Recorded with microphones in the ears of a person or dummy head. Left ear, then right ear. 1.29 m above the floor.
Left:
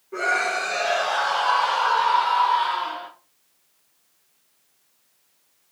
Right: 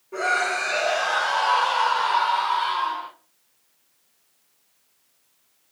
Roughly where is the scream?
Centre.